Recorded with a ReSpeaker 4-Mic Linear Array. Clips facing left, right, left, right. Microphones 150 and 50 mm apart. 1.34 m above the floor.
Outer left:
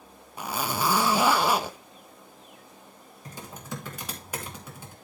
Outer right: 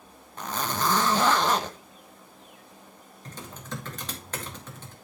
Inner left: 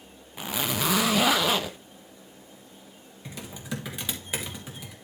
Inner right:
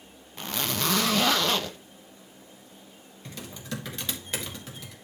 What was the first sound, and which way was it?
A zipper, 10° left (ahead or behind).